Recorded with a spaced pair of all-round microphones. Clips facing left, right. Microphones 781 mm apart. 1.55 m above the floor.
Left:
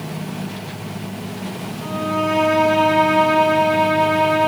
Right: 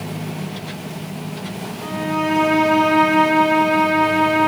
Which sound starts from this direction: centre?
A violin, at 1.8 s.